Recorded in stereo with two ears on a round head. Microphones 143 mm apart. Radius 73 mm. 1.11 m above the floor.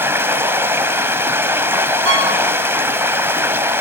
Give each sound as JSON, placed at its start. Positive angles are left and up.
{"t": 0.0, "sound": "running water", "side_deg": -15, "distance_m": 1.2}
{"t": 2.0, "sound": "a violin", "side_deg": -80, "distance_m": 8.0}